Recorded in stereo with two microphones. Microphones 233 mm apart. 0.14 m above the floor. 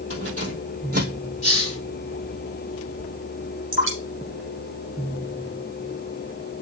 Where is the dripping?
60° right (ahead or behind), 2.5 m.